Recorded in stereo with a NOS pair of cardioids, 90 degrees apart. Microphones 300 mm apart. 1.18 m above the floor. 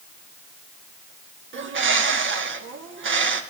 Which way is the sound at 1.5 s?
45° right.